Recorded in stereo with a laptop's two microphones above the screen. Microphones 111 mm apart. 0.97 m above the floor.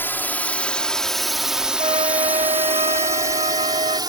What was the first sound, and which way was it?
A drone, 20° left (ahead or behind).